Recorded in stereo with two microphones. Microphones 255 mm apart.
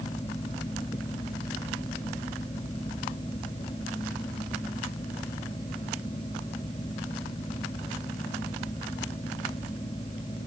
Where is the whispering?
I don't hear whispering.